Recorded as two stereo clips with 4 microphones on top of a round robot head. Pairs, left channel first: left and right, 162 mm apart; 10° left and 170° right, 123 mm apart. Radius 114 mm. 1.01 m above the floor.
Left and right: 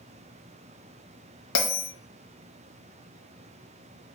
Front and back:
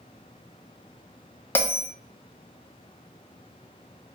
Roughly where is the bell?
Left.